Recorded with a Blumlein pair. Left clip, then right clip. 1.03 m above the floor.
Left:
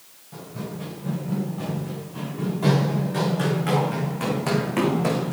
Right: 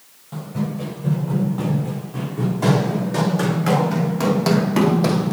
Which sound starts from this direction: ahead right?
Running footsteps, at 0.3 s.